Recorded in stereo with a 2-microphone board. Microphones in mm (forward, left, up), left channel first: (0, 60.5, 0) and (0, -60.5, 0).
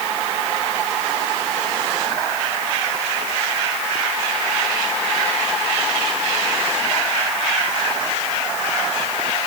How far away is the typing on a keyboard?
I don't hear typing on a keyboard.